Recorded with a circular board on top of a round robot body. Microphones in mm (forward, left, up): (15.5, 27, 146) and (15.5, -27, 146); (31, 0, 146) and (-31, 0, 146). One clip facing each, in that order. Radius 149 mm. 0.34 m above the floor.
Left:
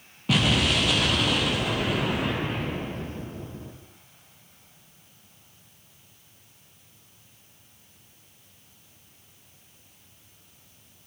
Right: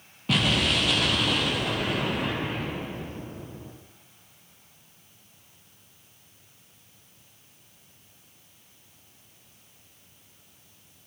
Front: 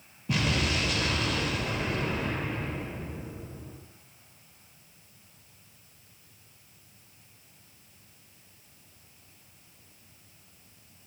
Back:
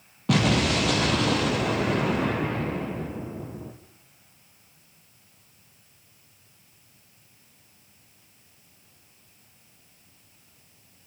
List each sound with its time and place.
0.3 s an explosion: 175° left, 3.5 m